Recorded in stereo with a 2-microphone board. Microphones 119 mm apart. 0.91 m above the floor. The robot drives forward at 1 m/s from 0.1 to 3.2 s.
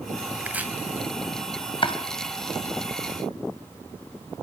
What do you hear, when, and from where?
0.4 s chopping: 15° right (ahead or behind), 1.9 m
1.8 s chopping: 45° left (ahead or behind), 2.0 m; by 2.0 s 50° left (ahead or behind), 1.9 m